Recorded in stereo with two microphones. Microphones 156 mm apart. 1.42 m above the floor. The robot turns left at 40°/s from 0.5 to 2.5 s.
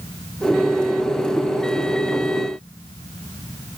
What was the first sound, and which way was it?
Only background noise.